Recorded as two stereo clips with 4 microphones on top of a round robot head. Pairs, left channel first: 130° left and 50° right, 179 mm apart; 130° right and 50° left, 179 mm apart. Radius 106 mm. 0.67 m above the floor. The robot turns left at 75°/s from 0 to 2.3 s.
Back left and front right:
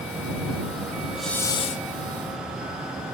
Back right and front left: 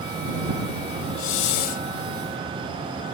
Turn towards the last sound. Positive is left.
turn(degrees=140)